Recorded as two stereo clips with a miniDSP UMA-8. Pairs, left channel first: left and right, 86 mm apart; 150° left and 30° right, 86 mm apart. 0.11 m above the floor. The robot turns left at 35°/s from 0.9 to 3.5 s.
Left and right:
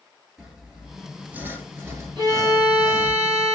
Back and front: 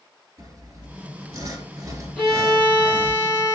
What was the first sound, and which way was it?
Sawing, 10° right.